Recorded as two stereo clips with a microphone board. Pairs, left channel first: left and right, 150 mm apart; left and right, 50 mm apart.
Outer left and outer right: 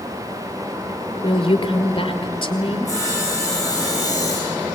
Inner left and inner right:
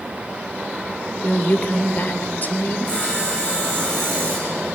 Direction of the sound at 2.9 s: 20° left (ahead or behind).